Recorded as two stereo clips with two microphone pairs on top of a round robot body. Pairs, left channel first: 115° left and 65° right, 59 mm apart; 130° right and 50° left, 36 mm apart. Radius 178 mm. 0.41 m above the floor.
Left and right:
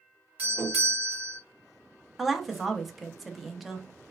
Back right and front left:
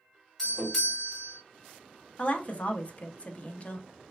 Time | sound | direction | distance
0.4 | a doorbell | 50° right | 1.7 m
2.2 | a woman speaking | 140° right | 0.8 m